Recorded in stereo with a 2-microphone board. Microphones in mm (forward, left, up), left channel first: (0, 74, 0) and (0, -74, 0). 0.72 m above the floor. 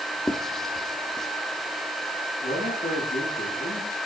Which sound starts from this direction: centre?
Writing, at 0.3 s.